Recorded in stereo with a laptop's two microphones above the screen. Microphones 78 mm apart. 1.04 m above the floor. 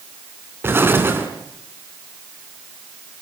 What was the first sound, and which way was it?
An explosion, 30° right (ahead or behind).